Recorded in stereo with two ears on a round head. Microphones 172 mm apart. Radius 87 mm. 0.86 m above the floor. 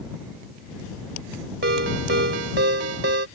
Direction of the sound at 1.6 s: 60° right (ahead or behind).